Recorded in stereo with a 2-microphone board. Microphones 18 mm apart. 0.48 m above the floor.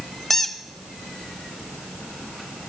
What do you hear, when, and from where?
0.3 s a squeak: 25° left (ahead or behind), 0.7 m